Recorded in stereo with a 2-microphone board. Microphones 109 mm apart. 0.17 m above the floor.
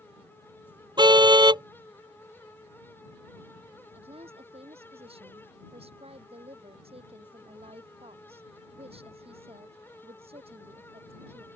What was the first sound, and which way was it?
A car horn, 40° right (ahead or behind).